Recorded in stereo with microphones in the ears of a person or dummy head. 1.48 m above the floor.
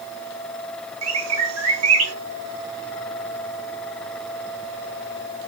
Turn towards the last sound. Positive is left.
turn(degrees=-85)